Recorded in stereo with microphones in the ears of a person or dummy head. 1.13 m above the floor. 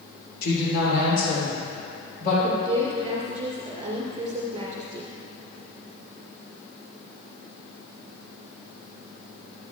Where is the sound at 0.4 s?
60° left (ahead or behind), 3 m; by 2.3 s 55° left (ahead or behind), 5 m.